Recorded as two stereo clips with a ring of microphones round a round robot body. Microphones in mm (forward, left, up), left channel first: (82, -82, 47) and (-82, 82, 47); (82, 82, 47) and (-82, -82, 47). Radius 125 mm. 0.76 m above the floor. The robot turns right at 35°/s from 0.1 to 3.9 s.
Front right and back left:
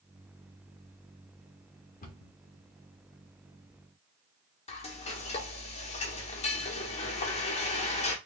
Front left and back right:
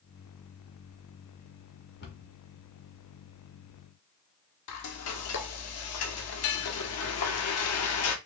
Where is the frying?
20° left, 0.8 m.